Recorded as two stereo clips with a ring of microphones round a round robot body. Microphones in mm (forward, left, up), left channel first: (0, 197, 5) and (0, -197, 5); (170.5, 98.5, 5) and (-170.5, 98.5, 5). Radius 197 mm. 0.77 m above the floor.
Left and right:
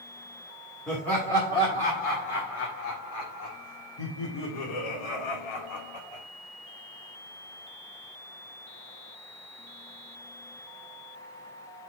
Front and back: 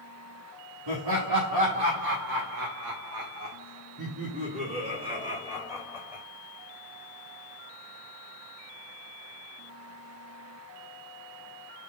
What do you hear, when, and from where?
0.9 s laughter: straight behind, 2 m; by 6.2 s 95° left, 2.5 m